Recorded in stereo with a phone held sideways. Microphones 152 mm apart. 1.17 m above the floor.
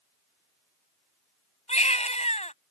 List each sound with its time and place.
1.7 s a baby crying: 45° left (ahead or behind)